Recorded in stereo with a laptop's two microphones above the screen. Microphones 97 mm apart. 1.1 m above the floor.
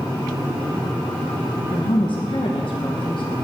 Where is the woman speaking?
60° left (ahead or behind), 1.0 m.